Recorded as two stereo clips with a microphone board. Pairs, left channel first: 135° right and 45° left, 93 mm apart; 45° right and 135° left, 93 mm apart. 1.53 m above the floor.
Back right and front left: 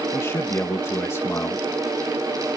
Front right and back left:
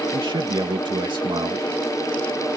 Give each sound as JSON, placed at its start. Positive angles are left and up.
{"t": 0.1, "sound": "a man speaking", "azimuth_deg": 165}